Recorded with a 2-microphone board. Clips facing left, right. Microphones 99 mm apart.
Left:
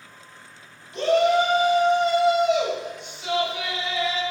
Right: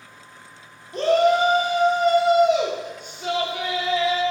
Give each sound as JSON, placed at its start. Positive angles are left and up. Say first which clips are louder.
{"t": 0.9, "sound": "a shout", "louder": "right 1 dB", "side_deg": -45, "distance_m": 0.9}